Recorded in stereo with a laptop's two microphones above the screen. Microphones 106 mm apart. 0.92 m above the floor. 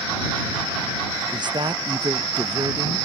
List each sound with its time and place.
1.3 s a woman speaking: 45° right (ahead or behind)